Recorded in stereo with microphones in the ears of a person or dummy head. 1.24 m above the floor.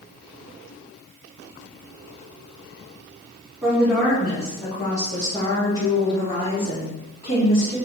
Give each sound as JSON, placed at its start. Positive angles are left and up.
{"t": 3.6, "sound": "a woman speaking", "side_deg": -10, "distance_m": 2.5}